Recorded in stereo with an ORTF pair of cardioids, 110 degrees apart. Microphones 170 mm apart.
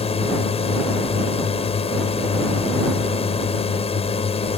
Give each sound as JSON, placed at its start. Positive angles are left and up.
{"t": 0.0, "sound": "a drone", "azimuth_deg": 35}